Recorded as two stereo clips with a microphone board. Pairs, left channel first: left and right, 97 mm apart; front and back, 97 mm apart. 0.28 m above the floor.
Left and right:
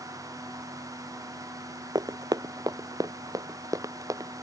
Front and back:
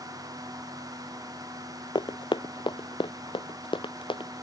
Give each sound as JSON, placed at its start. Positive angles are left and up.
{"t": 1.9, "sound": "running footsteps", "azimuth_deg": -40}